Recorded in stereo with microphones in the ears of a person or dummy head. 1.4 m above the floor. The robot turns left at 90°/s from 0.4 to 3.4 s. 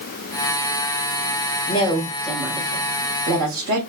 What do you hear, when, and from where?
1.7 s a woman speaking: 65° left, 1.8 m; by 3.8 s 90° right, 1.8 m